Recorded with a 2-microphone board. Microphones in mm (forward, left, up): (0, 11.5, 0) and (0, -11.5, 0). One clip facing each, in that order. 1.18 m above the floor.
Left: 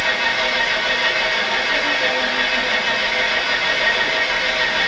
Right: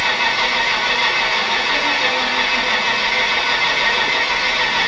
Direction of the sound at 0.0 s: 35° right (ahead or behind).